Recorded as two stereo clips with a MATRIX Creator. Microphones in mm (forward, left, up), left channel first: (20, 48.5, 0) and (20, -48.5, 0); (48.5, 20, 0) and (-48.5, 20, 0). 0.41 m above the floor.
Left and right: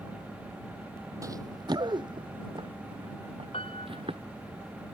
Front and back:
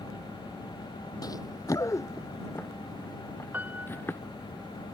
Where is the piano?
110° left.